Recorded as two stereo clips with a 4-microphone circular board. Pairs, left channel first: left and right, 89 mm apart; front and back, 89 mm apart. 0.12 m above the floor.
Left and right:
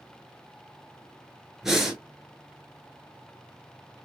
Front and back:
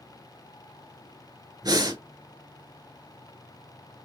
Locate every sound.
1.6 s breathing: 175° right, 1.1 m